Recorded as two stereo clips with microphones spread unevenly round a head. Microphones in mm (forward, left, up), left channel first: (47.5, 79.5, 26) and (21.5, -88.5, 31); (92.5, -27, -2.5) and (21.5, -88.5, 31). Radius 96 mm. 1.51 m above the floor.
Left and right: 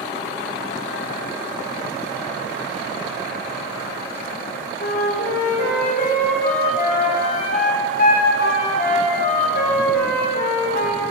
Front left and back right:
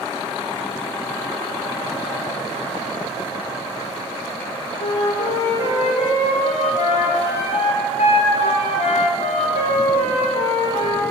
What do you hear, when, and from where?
4.8 s a flute: 45° left, 3 m